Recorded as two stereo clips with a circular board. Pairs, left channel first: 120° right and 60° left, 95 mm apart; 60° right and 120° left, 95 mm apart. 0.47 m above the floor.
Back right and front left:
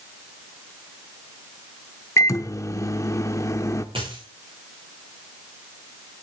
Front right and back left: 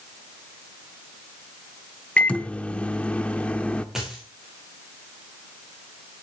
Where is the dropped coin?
35° left, 6.5 m.